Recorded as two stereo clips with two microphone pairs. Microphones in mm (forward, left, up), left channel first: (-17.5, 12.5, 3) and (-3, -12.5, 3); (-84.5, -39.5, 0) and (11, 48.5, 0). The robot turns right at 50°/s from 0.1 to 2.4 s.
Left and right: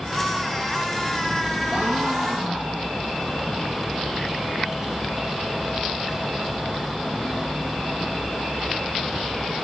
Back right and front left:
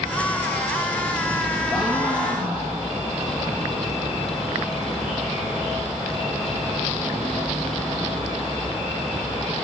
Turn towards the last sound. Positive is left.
turn(degrees=-15)